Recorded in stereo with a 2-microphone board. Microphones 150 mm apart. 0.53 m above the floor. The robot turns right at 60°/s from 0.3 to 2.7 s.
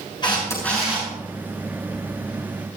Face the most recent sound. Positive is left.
turn(degrees=-65)